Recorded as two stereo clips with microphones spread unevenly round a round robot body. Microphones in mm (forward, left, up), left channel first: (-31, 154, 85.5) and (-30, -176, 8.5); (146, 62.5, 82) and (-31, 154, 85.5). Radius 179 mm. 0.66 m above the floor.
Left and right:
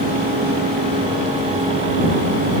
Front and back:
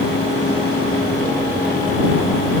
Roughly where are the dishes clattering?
I don't hear dishes clattering.